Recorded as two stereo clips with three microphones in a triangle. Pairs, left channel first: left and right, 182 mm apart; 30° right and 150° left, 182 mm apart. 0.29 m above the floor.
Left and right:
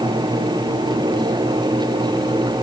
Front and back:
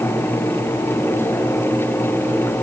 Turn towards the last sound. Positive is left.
No sound to turn to.